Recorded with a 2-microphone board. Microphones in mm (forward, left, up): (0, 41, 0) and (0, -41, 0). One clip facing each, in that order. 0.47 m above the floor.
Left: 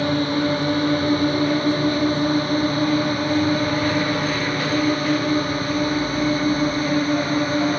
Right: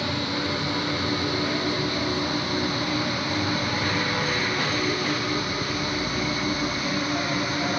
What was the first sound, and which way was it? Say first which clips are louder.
A drone: left 8 dB; 45° left (ahead or behind).